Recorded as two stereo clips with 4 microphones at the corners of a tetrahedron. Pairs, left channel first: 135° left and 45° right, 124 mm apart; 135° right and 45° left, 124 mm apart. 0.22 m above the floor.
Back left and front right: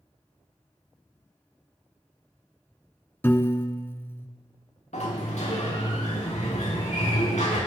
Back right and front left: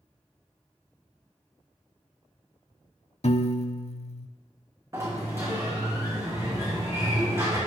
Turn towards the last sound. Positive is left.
turn(degrees=110)